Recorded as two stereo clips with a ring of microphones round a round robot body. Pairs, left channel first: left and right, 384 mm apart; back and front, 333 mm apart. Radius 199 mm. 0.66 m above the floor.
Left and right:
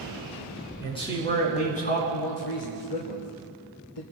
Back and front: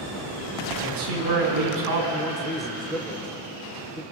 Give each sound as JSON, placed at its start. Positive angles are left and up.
{"t": 0.8, "sound": "a man speaking", "azimuth_deg": 10, "distance_m": 7.5}
{"t": 2.1, "sound": "a man speaking", "azimuth_deg": 90, "distance_m": 3.0}